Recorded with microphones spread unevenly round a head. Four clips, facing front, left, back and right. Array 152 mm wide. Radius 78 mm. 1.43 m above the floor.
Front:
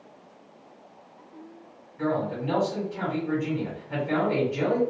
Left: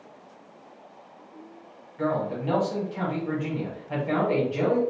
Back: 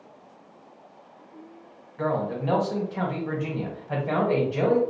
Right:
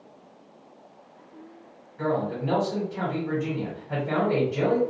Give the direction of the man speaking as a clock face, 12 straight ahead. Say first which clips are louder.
Even, back 1 dB; 6 o'clock.